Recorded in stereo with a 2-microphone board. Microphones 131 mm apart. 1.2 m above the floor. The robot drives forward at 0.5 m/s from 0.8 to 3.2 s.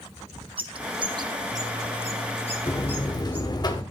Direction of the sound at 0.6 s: 45° right (ahead or behind).